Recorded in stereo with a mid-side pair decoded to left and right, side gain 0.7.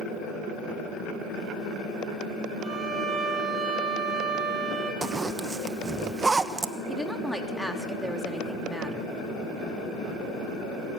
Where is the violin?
20° right, 8.5 m.